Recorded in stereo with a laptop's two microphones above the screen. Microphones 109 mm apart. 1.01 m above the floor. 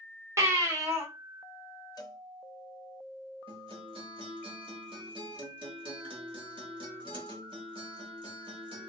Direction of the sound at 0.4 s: 25° right (ahead or behind).